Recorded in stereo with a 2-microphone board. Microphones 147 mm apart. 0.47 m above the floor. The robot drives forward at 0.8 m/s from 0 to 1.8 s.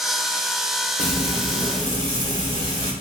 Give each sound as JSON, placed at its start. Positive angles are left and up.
{"t": 1.0, "sound": "frying", "side_deg": 50, "distance_m": 0.7}